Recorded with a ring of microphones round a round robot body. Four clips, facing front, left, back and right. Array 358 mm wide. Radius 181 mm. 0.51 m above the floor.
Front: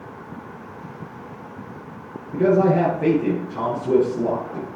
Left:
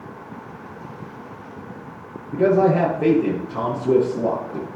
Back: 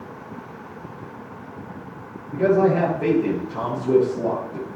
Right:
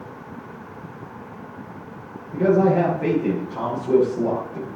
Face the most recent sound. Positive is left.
turn(degrees=115)